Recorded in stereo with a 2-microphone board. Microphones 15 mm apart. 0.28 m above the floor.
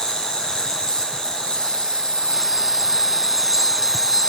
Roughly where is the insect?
Left.